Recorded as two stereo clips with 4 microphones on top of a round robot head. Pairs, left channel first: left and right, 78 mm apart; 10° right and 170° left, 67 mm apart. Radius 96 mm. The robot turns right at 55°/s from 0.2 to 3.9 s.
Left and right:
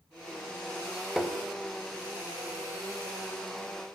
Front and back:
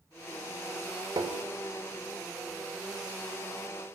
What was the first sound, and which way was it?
Tapping, 175° right.